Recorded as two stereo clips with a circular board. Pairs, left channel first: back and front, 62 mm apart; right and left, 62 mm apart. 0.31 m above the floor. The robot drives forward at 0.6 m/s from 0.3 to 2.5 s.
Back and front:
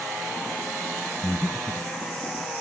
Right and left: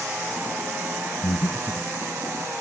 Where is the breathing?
105° right, 0.6 m; by 1.9 s 130° right, 0.8 m.